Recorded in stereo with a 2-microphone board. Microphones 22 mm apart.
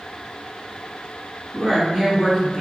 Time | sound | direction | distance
1.5 | a woman speaking | 5° right (ahead or behind) | 1.7 m